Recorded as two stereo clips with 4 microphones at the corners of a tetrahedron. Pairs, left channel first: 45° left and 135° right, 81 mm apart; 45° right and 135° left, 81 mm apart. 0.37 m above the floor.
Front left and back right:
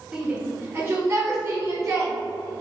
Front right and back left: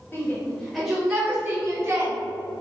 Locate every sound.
0.1 s a shout: 60° right, 0.8 m; by 2.1 s straight behind, 1.5 m